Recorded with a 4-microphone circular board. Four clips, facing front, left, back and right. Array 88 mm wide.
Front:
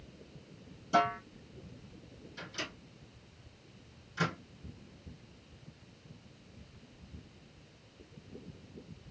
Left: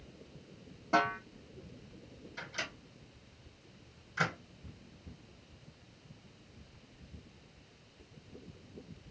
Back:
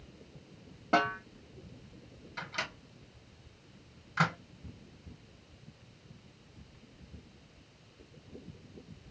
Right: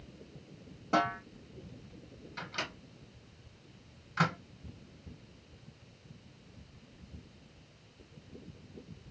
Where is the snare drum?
Straight behind, 1.6 m.